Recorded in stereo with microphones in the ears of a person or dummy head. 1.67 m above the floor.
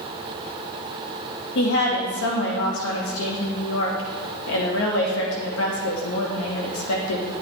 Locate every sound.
1.6 s a woman speaking: 75° left (ahead or behind), 2 m